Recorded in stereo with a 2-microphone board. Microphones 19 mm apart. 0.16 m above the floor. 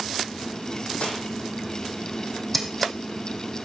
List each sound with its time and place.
1.0 s cutlery clinking: 75° left (ahead or behind), 5 m
2.5 s scissors: centre (ahead or behind), 2.5 m